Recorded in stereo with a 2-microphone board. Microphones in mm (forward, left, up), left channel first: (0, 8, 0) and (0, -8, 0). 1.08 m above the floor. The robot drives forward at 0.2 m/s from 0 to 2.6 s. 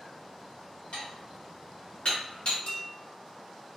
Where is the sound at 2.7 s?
55° left (ahead or behind), 1.4 m.